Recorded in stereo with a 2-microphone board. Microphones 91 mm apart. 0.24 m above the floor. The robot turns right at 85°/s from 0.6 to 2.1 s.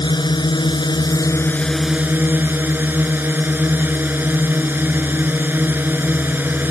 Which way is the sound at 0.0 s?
80° left.